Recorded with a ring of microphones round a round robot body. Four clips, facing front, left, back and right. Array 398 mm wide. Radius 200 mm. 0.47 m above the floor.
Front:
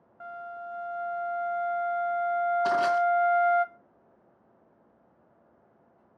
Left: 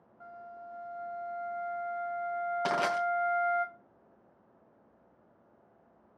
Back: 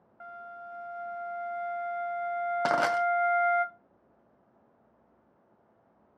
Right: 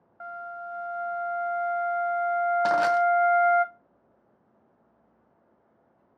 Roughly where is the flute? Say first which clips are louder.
Right 9 dB, front 5 dB; right.